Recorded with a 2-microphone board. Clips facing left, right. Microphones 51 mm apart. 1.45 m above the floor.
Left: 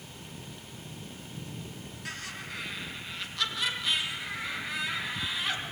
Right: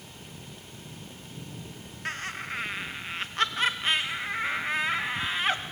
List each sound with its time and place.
2.0 s laughter: 40° right (ahead or behind), 2.0 m